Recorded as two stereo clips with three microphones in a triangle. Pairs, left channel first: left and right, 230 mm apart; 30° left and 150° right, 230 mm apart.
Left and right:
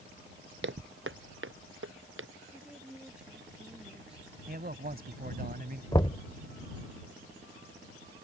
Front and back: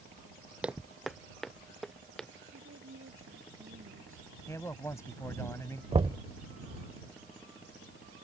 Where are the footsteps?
65° right; by 2.3 s 60° right.